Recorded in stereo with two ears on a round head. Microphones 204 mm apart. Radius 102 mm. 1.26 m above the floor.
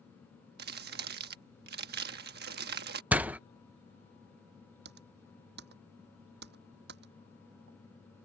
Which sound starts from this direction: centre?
A door slam, at 3.1 s.